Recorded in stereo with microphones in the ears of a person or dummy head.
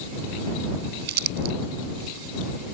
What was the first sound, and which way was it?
Crumpling, 60° right (ahead or behind).